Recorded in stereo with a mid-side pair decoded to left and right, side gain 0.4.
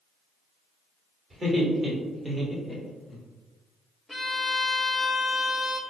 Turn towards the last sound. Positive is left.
turn(degrees=10)